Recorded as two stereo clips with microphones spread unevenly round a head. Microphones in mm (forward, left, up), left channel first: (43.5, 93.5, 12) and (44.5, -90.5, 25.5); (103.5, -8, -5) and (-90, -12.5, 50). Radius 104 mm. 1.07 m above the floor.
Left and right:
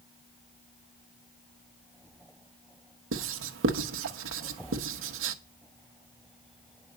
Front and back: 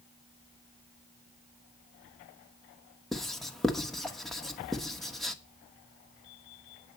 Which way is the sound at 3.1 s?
85° right.